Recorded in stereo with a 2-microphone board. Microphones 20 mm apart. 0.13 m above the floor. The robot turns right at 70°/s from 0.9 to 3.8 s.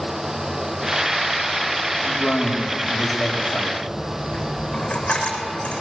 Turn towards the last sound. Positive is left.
turn(degrees=75)  # may be behind; listen again after turning